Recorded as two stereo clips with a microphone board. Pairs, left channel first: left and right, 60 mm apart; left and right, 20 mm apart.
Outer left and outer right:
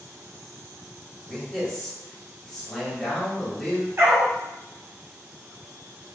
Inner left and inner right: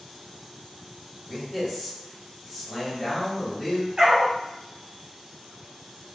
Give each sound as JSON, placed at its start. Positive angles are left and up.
{"t": 1.3, "sound": "a man speaking", "side_deg": 5, "distance_m": 1.2}
{"t": 4.0, "sound": "a dog barking", "side_deg": -50, "distance_m": 0.9}